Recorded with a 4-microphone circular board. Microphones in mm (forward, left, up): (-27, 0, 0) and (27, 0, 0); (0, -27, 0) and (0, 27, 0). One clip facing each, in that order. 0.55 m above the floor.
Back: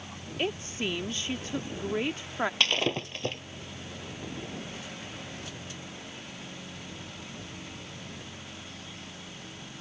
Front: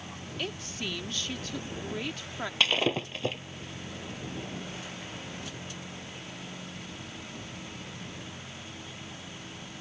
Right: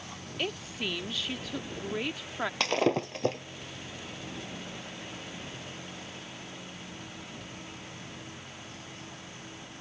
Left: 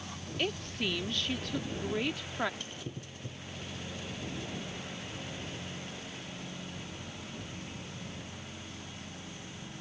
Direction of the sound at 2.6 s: 85° right.